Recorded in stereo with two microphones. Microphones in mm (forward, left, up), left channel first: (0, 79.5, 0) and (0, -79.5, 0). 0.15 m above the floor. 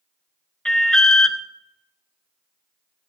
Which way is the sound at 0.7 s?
5° left (ahead or behind).